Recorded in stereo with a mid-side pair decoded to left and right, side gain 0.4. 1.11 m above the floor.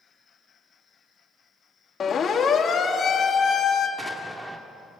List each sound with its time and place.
2.0 s a siren: 55° left, 2.5 m
4.0 s an explosion: 20° right, 3 m